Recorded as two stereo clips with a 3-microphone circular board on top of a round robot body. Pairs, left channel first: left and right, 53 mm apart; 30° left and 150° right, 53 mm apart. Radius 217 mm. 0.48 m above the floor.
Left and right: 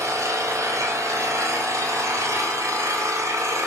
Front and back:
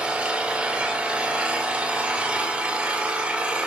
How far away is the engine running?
About 2.5 m.